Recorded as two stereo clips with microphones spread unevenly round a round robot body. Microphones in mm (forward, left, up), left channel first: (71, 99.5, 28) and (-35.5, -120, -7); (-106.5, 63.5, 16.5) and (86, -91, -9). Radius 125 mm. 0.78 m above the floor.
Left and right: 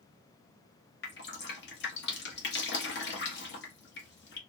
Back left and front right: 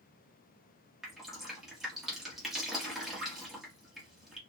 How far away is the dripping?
About 1.1 m.